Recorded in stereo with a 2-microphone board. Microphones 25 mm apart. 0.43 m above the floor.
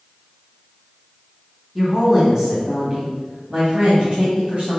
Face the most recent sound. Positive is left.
turn(degrees=-65)  # may be behind; listen again after turning